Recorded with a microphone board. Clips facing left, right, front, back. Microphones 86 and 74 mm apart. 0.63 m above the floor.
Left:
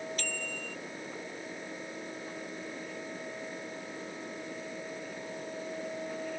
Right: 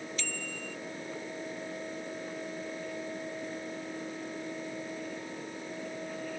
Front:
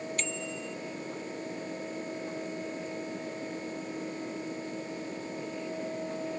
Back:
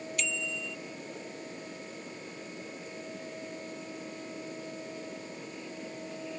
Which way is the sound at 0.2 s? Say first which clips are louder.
Left 1 dB, even; 50° left.